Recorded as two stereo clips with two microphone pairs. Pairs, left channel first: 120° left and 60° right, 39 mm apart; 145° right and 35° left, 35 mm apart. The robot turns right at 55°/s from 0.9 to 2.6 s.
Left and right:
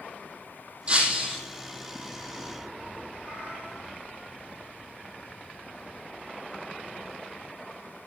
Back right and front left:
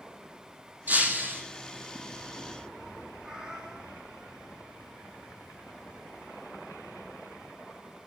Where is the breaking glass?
5° left, 5 m; by 1.4 s 35° left, 5 m.